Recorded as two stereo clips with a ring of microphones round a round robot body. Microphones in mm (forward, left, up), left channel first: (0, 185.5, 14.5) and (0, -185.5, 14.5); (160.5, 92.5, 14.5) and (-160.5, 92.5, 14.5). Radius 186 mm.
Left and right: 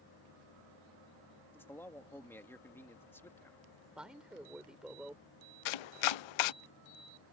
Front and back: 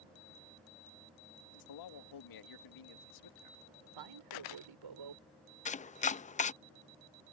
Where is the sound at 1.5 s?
5° left.